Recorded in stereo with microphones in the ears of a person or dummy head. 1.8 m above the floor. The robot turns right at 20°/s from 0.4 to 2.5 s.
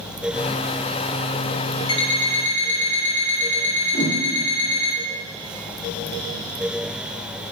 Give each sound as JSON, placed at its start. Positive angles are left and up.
{"t": 1.9, "sound": "an alarm clock", "side_deg": 30, "distance_m": 2.5}
{"t": 3.9, "sound": "a whoosh", "side_deg": 35, "distance_m": 2.5}